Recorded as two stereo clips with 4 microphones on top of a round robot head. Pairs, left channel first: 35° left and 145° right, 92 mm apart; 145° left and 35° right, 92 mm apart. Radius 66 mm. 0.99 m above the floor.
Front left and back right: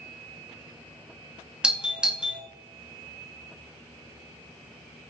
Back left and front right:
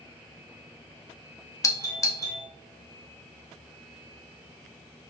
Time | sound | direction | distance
1.6 | a doorbell | 145° left | 0.8 m